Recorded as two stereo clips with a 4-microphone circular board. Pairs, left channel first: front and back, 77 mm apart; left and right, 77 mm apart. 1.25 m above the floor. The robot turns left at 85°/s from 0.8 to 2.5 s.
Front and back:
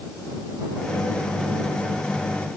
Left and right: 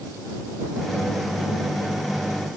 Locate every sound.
Only background noise.